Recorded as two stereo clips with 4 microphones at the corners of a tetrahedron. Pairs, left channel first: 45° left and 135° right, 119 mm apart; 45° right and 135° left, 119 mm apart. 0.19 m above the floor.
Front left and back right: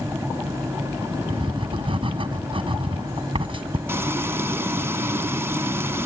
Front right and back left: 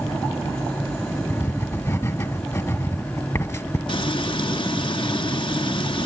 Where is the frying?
70° right, 0.8 m.